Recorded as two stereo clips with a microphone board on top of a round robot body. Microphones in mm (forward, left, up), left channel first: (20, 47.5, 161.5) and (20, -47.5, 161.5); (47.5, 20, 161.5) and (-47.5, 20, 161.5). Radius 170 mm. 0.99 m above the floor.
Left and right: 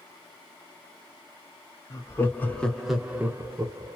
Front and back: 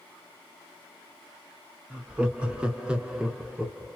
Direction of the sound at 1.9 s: 105° left.